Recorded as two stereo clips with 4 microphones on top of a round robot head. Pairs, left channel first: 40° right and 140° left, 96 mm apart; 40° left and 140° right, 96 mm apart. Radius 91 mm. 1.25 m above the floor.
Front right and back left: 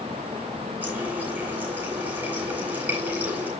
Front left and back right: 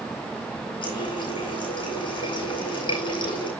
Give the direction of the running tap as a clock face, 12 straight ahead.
10 o'clock.